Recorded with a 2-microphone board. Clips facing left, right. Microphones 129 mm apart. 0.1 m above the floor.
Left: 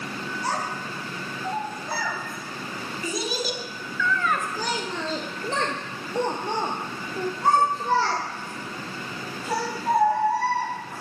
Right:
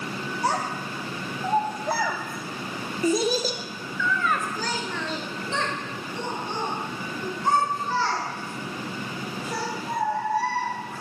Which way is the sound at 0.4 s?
75° right (ahead or behind).